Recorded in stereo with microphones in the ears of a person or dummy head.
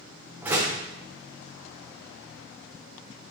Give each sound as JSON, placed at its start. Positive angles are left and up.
{"t": 0.4, "sound": "a door slam", "side_deg": -10, "distance_m": 0.8}